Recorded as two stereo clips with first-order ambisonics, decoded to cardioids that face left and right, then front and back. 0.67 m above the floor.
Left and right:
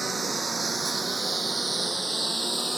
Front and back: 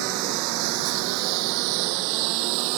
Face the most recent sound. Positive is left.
turn(degrees=-175)